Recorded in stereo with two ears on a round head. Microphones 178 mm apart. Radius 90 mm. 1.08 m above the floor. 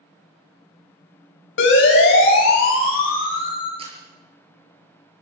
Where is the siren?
65° left (ahead or behind), 7 m; by 3.7 s 45° left (ahead or behind), 7 m.